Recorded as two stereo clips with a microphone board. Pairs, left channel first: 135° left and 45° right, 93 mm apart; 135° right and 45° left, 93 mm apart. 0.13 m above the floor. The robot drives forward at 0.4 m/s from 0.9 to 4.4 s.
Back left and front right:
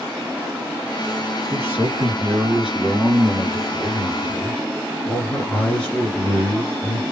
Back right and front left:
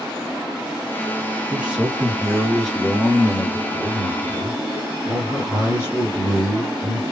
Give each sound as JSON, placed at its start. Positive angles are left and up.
{"t": 1.5, "sound": "a man speaking", "azimuth_deg": -15, "distance_m": 1.4}